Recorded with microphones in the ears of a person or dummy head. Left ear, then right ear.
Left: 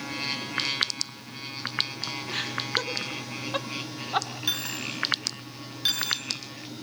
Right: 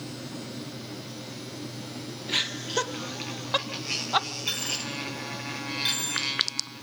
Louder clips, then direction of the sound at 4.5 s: Even; 15° left (ahead or behind).